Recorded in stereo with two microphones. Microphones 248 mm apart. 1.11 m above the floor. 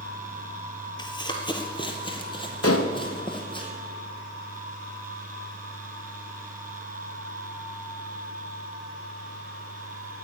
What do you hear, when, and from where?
1.0 s running footsteps: 20° left (ahead or behind), 1.6 m
2.6 s dishes clattering: 80° left, 0.9 m